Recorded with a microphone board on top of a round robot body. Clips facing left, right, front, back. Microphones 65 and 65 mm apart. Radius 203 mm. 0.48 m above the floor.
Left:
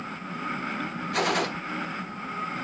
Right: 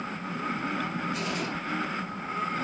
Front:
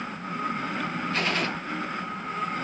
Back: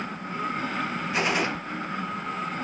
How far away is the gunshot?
About 1.4 m.